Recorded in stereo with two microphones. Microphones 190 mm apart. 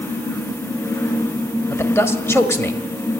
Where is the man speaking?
15° left (ahead or behind), 1.4 m.